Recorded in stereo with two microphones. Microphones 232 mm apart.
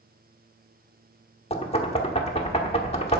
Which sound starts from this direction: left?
Knocking, at 1.5 s.